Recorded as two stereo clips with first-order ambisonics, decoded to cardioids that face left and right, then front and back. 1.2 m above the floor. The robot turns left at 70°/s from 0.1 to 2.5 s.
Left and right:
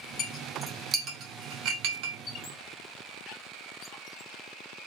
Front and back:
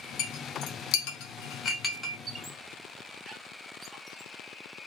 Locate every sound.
0.2 s a clink: 35° left, 1.2 m; by 2.2 s 100° right, 1.2 m
2.3 s a squeak: 120° left, 1.5 m; by 4.3 s 100° left, 1.5 m